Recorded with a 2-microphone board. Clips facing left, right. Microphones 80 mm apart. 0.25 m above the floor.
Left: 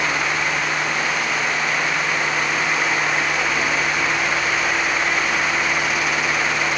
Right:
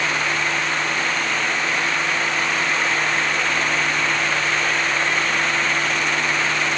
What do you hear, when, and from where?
Only background noise.